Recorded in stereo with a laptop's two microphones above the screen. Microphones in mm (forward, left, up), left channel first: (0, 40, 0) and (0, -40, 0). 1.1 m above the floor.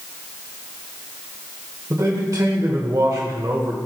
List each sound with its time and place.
1.9 s a man speaking: 50° right (ahead or behind), 1.2 m